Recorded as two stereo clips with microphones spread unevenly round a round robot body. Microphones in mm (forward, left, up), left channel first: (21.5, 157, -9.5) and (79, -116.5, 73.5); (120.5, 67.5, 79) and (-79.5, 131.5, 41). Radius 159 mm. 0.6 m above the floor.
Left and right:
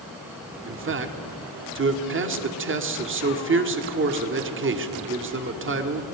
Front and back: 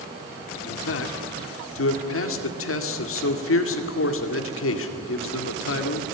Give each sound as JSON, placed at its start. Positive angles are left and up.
{"t": 0.7, "sound": "a man speaking", "azimuth_deg": -25, "distance_m": 2.0}